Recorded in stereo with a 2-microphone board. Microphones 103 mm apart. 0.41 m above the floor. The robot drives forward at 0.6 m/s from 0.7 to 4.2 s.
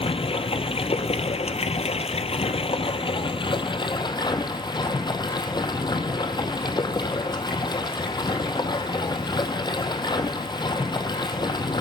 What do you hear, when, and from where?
0.0 s running water: 65° left (ahead or behind), 1.6 m; by 11.8 s 45° left (ahead or behind), 2 m